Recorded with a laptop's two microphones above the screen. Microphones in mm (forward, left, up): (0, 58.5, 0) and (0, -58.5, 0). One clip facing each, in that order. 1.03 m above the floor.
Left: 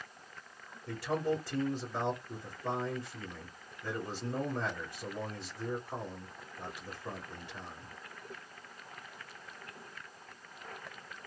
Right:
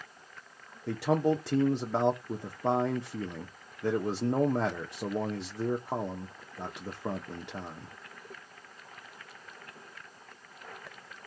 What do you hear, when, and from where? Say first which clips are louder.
0.9 s a man speaking: right 6 dB; 70° right (ahead or behind), 0.7 m